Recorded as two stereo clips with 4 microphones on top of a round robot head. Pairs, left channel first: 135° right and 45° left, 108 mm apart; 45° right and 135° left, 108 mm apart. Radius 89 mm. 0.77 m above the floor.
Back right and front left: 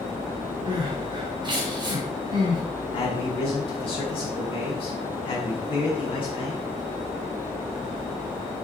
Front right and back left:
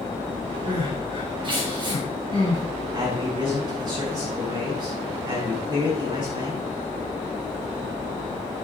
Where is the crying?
90° left, 3.5 m.